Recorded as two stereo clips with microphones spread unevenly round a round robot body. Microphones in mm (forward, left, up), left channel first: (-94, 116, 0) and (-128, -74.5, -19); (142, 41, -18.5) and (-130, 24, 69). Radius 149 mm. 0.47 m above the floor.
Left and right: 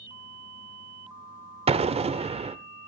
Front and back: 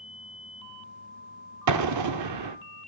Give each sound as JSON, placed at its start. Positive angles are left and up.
{"t": 1.7, "sound": "an explosion", "azimuth_deg": -150, "distance_m": 1.0}